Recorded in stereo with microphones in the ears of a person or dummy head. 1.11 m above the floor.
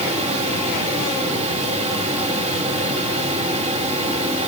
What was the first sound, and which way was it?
A fan, 30° right (ahead or behind).